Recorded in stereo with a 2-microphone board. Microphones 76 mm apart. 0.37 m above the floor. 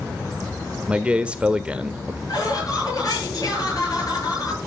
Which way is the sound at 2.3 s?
55° left (ahead or behind).